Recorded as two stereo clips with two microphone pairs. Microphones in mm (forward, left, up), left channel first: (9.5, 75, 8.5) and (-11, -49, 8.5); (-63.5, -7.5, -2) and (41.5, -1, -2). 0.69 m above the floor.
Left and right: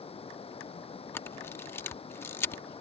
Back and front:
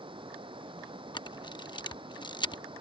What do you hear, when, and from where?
0.0 s running water: 40° left
1.1 s a camera shutter: 150° left